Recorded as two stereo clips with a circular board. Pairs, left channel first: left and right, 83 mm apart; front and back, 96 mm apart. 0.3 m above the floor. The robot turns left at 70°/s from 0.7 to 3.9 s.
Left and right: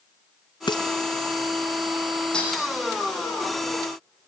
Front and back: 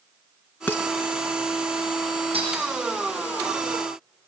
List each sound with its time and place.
0.7 s dishes clattering: 75° left, 2 m; by 0.8 s 65° left, 2 m
2.3 s breaking glass: 170° left, 9 m; by 2.7 s 150° left, 9 m